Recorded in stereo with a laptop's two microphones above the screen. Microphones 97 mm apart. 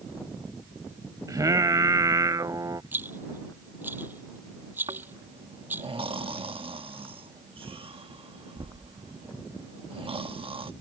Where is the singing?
35° right (ahead or behind).